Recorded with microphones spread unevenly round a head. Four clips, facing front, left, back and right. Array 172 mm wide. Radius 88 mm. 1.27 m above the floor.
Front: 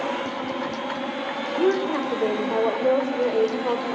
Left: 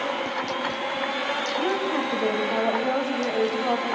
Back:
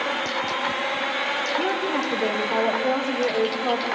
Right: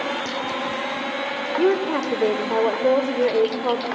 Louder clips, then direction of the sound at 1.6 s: Right 7 dB, front 5 dB; 70° right.